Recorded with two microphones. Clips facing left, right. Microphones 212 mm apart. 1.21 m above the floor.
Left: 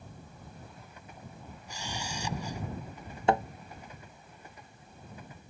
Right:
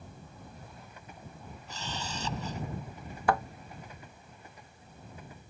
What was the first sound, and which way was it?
A camera shutter, 10° left (ahead or behind).